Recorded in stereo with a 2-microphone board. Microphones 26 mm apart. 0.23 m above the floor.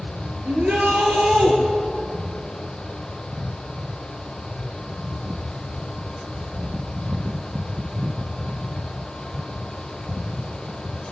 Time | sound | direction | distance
0.5 | a shout | 60° right (ahead or behind) | 4.5 m